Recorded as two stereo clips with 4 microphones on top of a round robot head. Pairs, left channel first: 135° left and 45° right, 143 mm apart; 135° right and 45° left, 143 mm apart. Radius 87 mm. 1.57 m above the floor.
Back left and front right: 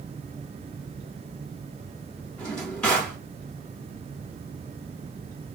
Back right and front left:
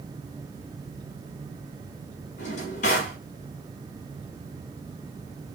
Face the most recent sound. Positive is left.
turn(degrees=-145)